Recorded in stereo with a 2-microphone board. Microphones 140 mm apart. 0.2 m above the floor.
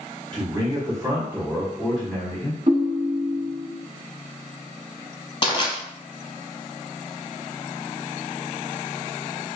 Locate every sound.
0.3 s a man speaking: 35° right (ahead or behind), 1.3 m; by 2.6 s 20° left (ahead or behind), 1.1 m
2.7 s a ringtone: 50° right (ahead or behind), 0.6 m
5.4 s crushing: 35° left (ahead or behind), 0.8 m